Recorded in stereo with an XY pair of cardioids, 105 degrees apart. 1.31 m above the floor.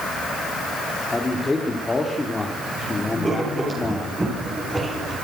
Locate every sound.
1.1 s a man speaking: 25° left, 3 m
3.2 s writing: 20° right, 8.5 m